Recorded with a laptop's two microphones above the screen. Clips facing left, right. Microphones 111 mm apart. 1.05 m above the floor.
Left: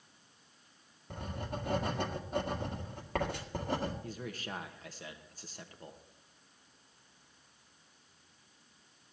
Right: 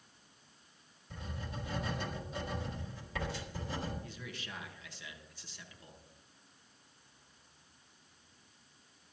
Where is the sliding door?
I don't hear a sliding door.